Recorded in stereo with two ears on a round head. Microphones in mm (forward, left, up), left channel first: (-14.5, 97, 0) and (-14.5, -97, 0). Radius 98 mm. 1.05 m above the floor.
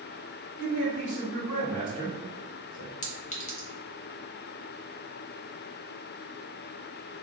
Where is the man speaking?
70° left (ahead or behind), 1.4 m; by 2.9 s 90° left, 2.5 m.